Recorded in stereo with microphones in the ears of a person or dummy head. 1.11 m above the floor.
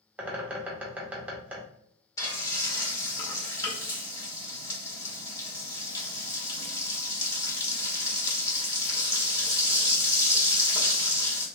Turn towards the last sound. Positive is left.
turn(degrees=15)  # may be behind; listen again after turning